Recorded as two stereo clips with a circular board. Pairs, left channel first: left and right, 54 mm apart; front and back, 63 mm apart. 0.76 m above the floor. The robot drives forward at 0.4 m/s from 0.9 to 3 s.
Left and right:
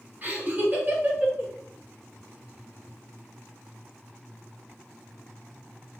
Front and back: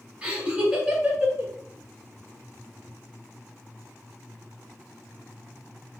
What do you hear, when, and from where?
0.2 s laughter: 115° right, 0.8 m; by 1.5 s 135° right, 0.9 m